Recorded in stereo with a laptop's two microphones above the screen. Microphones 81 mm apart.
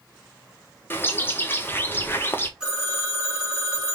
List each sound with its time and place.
0.9 s a bird: 25° left (ahead or behind), 0.5 m
2.6 s a phone ringing: 10° right (ahead or behind), 1.3 m